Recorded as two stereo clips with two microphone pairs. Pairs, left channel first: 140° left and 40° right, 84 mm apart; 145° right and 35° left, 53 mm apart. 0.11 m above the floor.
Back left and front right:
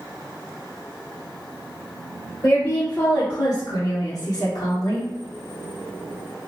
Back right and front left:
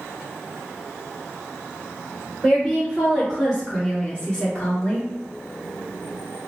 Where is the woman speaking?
90° left, 2.0 m; by 5.1 s 150° left, 2 m.